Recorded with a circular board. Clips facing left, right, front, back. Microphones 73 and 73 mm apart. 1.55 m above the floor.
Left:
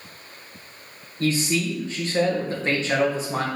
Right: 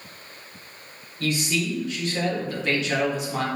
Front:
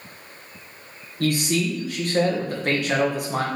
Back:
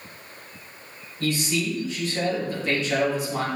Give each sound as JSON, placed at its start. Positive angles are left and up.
{"t": 1.2, "sound": "a man speaking", "azimuth_deg": 30, "distance_m": 1.6}